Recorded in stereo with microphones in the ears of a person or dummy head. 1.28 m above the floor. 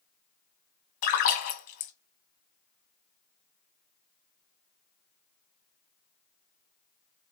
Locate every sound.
1.0 s a splash: 40° left (ahead or behind), 0.9 m